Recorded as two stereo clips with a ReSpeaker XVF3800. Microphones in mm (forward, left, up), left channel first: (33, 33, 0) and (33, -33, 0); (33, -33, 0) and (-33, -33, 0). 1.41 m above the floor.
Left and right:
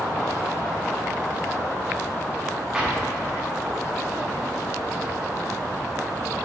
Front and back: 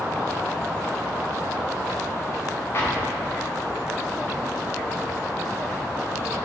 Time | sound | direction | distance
2.7 | an explosion | 20° right | 1.1 m